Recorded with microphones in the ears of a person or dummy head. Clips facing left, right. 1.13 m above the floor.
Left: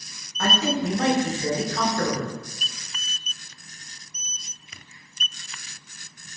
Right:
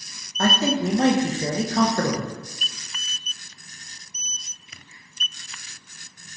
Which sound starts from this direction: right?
A man speaking, at 0.4 s.